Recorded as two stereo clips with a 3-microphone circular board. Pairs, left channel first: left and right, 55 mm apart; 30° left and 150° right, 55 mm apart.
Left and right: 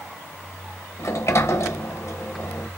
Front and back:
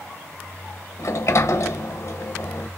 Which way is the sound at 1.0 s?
60° left.